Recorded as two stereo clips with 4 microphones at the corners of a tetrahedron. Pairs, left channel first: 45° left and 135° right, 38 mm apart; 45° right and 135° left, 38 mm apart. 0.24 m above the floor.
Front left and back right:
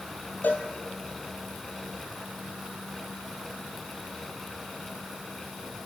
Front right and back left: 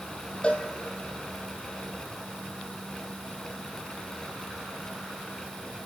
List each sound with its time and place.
0.4 s a cowbell: 15° left, 1.5 m